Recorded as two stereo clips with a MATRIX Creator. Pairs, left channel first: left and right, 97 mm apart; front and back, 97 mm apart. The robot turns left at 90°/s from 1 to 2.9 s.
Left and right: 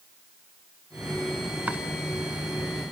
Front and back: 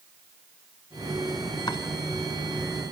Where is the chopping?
20° right, 2 m; by 1.8 s 35° right, 2 m.